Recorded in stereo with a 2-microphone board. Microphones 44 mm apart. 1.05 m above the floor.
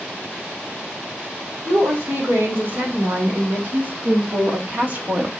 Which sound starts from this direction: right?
A woman speaking, at 1.6 s.